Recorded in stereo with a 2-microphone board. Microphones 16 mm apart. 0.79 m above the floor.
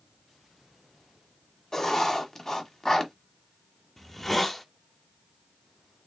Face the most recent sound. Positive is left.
turn(degrees=15)  # may be behind; listen again after turning